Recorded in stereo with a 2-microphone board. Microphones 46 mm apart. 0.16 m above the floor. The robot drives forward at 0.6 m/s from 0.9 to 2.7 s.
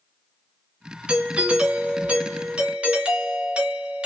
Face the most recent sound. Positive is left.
turn(degrees=-20)  # may be behind; listen again after turning